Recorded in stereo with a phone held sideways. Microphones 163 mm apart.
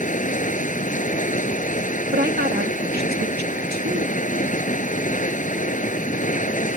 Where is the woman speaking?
75° right (ahead or behind).